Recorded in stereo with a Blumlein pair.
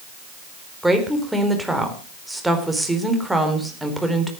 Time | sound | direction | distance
0.8 | a woman speaking | 5° right | 3.5 m